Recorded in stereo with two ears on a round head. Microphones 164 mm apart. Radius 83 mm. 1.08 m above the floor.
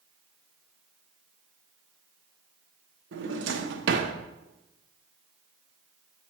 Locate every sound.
3.1 s a drawer: 65° right (ahead or behind), 0.7 m